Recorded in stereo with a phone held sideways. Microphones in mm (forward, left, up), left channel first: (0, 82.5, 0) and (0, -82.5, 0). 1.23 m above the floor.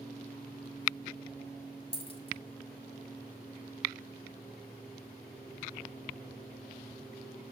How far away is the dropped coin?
About 1.6 m.